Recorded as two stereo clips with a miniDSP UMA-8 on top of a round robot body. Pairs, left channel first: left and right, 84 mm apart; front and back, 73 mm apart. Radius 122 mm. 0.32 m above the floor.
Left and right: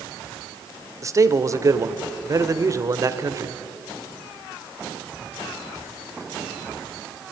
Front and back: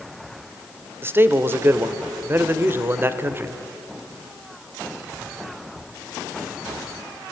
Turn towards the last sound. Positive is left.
turn(degrees=-130)